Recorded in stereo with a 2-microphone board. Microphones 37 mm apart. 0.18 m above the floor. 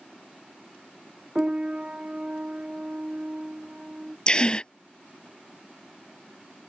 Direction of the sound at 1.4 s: 25° right (ahead or behind).